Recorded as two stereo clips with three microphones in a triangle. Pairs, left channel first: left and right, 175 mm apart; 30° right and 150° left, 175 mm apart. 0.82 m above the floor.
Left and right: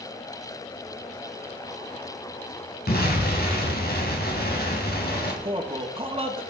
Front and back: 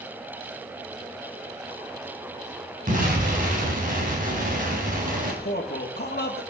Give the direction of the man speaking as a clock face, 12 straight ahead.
1 o'clock.